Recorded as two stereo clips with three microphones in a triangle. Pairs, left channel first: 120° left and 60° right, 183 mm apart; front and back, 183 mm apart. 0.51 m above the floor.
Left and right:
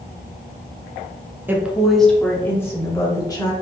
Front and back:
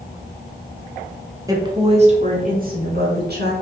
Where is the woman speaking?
130° right, 0.8 m; by 3.5 s 175° right, 1.5 m.